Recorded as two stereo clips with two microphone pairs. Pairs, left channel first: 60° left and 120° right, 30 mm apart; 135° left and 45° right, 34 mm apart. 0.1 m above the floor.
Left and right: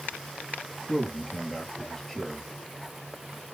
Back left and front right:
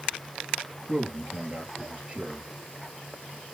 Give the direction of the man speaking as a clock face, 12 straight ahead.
1 o'clock.